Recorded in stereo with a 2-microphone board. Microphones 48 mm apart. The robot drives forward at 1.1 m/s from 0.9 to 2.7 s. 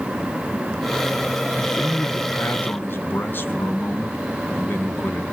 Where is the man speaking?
35° left (ahead or behind), 1.9 m; by 5.2 s 45° left (ahead or behind), 1.6 m.